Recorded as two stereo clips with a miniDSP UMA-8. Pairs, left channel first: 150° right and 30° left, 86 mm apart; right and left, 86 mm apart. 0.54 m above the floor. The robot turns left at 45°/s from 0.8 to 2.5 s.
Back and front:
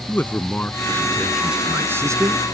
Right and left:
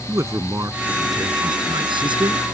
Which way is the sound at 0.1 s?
140° left.